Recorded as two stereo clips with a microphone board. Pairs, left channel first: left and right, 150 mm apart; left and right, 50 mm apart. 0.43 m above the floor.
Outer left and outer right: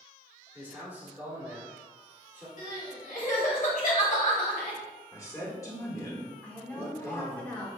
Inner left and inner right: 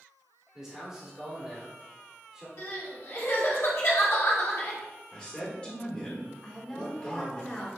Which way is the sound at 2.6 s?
60° left (ahead or behind).